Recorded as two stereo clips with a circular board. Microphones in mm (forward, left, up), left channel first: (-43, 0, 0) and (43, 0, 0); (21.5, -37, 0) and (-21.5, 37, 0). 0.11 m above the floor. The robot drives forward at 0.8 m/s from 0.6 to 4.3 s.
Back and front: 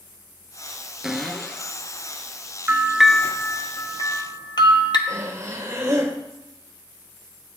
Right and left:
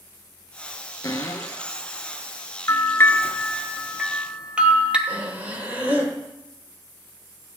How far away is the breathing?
About 3.5 m.